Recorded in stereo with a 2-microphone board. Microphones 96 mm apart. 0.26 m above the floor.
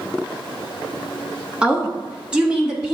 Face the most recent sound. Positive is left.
turn(degrees=-5)  # may be behind; listen again after turning